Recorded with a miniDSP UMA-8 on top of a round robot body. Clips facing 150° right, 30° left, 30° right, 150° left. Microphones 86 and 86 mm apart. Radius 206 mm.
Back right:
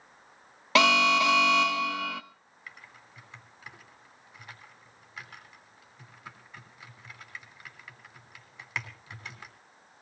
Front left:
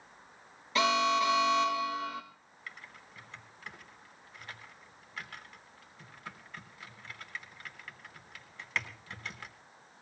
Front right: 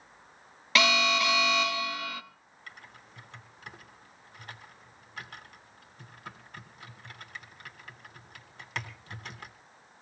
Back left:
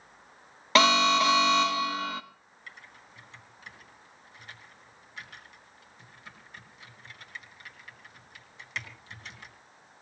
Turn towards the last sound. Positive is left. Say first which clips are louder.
# front left 1 dB, even
turn(degrees=-75)